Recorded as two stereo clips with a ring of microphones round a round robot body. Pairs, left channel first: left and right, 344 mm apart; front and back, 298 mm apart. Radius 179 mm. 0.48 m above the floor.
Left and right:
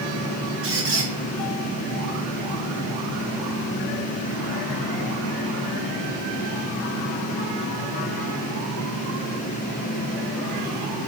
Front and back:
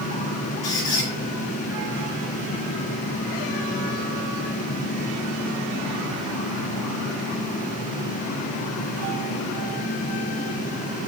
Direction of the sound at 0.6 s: 35° right.